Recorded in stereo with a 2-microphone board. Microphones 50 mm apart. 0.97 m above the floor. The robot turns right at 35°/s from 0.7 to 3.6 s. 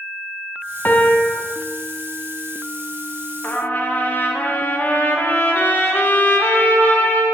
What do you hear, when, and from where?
0.8 s a piano: 35° left (ahead or behind), 0.7 m; by 1.3 s 20° left (ahead or behind), 0.7 m
3.4 s a trumpet: 35° left (ahead or behind), 0.9 m; by 7.2 s 40° left (ahead or behind), 0.9 m